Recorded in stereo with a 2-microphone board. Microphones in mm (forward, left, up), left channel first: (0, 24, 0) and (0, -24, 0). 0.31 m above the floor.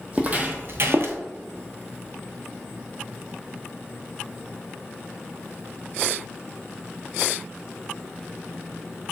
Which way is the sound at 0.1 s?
30° right (ahead or behind).